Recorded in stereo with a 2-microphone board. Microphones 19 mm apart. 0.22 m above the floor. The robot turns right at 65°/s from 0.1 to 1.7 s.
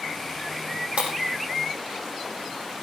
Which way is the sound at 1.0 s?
85° right.